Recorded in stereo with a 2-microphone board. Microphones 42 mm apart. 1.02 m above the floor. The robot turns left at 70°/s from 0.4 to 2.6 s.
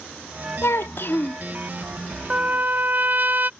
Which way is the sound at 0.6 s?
95° left.